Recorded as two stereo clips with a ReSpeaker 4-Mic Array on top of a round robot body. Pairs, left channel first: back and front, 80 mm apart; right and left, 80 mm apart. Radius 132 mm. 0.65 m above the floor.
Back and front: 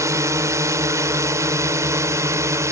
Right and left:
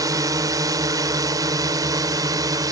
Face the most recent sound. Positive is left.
turn(degrees=50)